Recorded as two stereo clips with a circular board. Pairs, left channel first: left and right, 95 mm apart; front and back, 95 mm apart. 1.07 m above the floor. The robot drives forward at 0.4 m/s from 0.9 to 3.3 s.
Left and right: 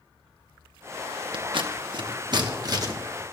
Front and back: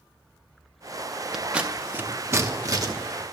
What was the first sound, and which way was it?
Scissors, 95° right.